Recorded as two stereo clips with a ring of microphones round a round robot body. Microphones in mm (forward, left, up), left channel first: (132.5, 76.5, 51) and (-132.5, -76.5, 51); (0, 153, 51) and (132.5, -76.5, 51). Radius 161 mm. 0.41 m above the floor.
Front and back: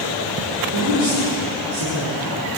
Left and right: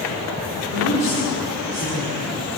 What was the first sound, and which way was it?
A woman speaking, 170° left.